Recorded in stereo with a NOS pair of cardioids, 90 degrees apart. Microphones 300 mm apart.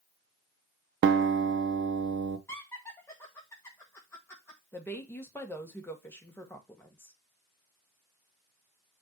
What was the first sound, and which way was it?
A guitar, 40° right.